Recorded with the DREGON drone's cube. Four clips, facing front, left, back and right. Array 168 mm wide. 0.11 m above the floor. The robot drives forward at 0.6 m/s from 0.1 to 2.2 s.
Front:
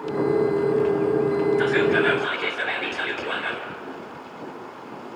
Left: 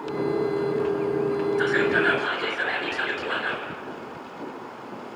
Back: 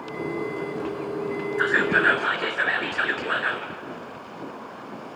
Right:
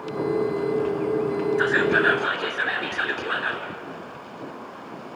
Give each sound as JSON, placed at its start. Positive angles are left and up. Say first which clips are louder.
{"t": 1.6, "sound": "whispering", "louder": "right 2 dB, front 2 dB", "azimuth_deg": -145, "distance_m": 2.0}